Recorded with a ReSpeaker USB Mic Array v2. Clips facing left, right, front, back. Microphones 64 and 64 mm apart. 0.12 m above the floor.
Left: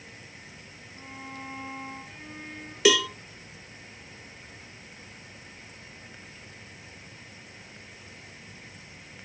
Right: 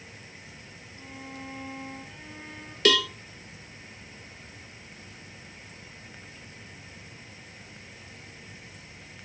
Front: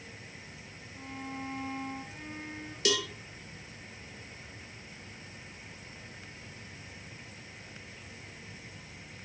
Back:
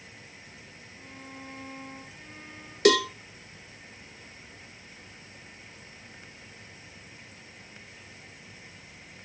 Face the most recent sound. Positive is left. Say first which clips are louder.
# left 2 dB, back 10 dB
turn(degrees=170)